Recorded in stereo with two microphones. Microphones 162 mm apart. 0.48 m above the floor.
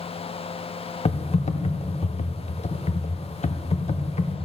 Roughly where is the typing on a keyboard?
Left.